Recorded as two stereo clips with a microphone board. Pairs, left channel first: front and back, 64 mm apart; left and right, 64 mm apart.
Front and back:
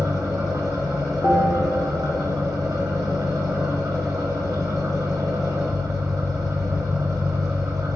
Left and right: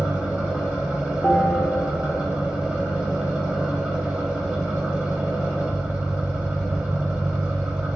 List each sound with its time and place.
0.0 s an engine running: 160° right, 0.9 m
1.2 s a bell: 20° left, 0.9 m